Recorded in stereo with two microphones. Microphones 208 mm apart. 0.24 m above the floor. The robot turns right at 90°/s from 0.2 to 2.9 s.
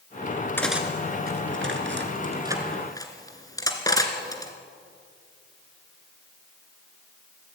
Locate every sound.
0.6 s cutlery clinking: 10° left (ahead or behind), 2 m; by 4.5 s 15° left (ahead or behind), 2 m